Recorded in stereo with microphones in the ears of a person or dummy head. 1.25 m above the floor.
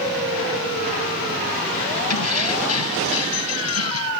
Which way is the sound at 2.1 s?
85° left.